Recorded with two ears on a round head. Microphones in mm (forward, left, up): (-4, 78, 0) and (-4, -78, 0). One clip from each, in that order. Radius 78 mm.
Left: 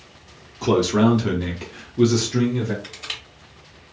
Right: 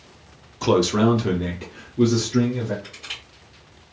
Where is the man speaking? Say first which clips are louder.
Even; 25° right (ahead or behind), 0.7 m; by 2.7 s 55° left (ahead or behind), 1.2 m.